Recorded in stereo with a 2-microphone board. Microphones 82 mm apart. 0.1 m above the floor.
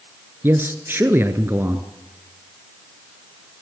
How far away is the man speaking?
About 1.5 m.